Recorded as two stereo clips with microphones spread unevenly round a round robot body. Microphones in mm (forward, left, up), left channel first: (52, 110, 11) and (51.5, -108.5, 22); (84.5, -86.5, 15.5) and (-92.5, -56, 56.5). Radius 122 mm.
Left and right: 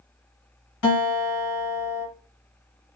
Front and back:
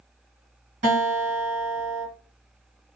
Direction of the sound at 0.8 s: 110° left.